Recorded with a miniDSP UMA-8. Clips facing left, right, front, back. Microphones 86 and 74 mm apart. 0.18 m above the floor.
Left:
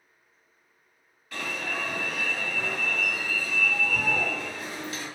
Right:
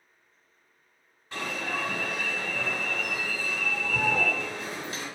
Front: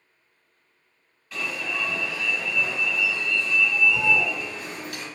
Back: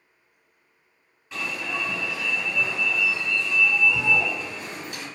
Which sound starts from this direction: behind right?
An alarm, at 1.3 s.